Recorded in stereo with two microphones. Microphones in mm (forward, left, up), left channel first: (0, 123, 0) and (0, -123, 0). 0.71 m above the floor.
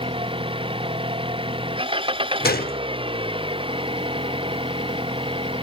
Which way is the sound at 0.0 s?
20° right (ahead or behind).